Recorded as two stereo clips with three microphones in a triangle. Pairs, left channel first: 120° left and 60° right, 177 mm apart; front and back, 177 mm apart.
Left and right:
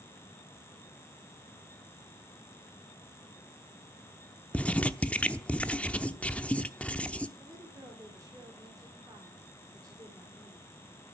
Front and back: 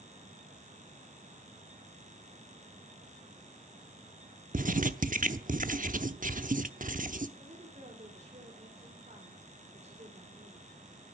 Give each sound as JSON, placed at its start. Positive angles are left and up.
{"t": 4.5, "sound": "writing", "azimuth_deg": -160, "distance_m": 0.8}
{"t": 7.4, "sound": "a woman speaking", "azimuth_deg": -130, "distance_m": 3.5}